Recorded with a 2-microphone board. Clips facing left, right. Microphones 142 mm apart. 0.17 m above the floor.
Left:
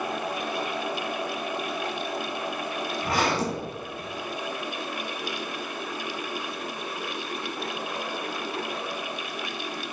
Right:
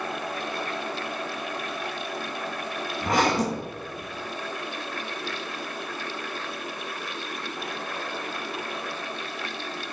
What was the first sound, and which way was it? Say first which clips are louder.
A zipper: right 3 dB; 45° right (ahead or behind).